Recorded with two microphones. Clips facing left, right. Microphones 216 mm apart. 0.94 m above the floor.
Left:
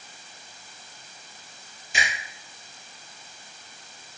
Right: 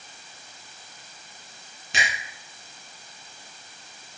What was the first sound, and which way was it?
A finger snap, 70° right (ahead or behind).